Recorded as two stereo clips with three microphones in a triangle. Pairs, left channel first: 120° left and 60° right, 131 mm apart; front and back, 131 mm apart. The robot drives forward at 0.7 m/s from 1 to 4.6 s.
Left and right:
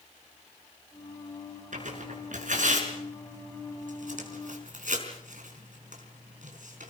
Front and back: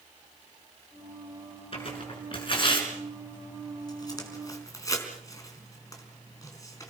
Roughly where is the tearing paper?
Ahead right.